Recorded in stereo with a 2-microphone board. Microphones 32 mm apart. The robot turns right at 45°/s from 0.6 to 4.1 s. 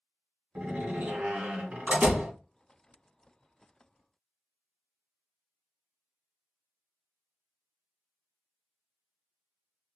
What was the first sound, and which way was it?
A door slam, 130° right.